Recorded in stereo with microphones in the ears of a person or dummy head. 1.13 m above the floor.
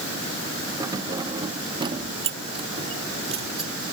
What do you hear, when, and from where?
0.8 s keys jangling: 15° right (ahead or behind); by 3.7 s 30° right (ahead or behind)